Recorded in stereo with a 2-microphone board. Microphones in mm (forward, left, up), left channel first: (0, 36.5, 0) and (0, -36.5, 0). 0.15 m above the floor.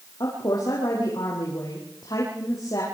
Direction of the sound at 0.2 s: 75° left (ahead or behind).